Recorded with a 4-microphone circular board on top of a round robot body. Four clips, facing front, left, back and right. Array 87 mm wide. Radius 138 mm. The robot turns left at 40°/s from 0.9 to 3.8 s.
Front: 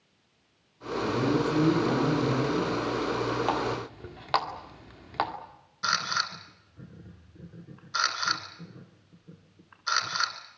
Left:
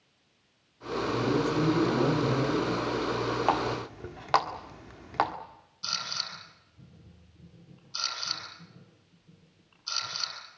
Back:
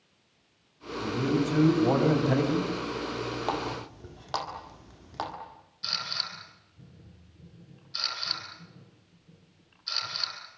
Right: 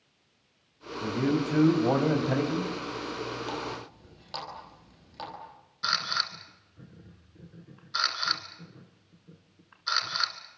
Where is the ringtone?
I don't hear a ringtone.